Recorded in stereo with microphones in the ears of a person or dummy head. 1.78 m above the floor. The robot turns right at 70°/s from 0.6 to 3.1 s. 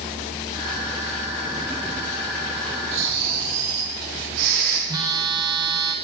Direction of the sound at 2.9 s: 80° right.